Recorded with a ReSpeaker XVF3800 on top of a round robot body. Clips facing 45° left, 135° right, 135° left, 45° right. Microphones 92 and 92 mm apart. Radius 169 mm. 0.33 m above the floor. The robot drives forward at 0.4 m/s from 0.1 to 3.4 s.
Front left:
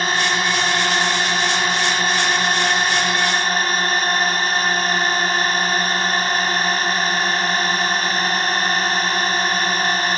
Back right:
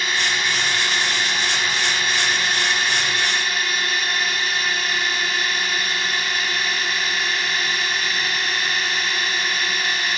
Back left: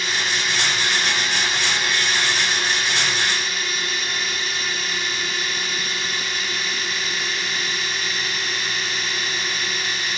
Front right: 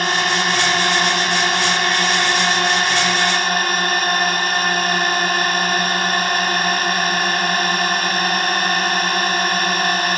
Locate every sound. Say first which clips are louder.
0.0 s a drone: front left 4 dB, front right 7 dB; 5° right; by 10.2 s 10° right